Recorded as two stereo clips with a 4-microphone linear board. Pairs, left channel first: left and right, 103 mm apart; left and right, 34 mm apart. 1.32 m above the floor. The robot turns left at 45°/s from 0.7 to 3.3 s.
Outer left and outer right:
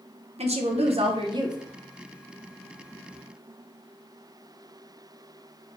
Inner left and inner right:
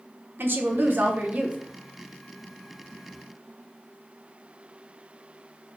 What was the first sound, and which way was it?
A woman speaking, 105° right.